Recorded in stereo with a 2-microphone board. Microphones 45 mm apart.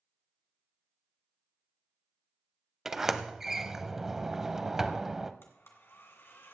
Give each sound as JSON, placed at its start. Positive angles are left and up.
{"t": 2.9, "sound": "a sliding door", "side_deg": -10, "distance_m": 0.7}
{"t": 5.4, "sound": "a blender", "side_deg": 55, "distance_m": 2.0}